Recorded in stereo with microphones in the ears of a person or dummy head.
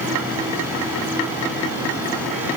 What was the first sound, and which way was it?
Only background noise.